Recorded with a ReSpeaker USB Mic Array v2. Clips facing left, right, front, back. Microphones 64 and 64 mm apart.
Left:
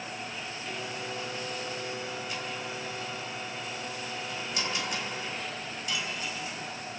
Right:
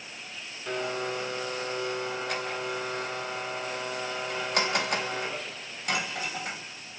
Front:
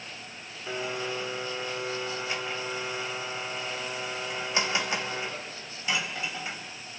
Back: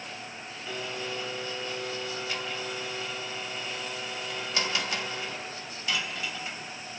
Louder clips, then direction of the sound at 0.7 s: Right 9 dB, front 3 dB; 65° right.